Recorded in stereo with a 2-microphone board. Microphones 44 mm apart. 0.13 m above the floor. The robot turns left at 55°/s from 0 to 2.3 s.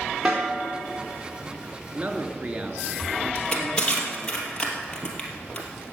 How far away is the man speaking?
About 1.6 m.